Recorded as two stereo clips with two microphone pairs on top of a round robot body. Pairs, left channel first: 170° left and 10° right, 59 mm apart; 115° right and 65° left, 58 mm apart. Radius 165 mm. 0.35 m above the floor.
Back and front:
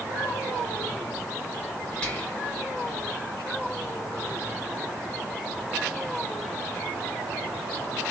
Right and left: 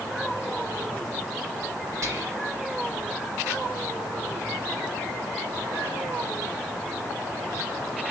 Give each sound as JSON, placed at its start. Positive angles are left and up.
{"t": 2.0, "sound": "whispering", "azimuth_deg": 95, "distance_m": 3.5}